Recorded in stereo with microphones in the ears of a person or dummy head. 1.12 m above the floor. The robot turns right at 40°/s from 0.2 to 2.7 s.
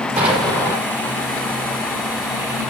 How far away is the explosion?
About 5 m.